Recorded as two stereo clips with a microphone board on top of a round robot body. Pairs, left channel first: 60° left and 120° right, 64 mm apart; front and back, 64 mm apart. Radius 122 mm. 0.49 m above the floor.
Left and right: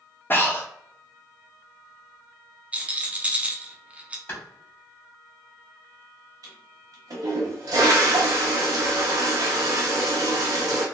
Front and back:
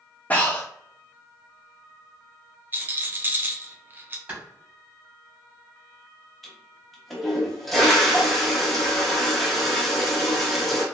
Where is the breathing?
40° left, 1.1 m.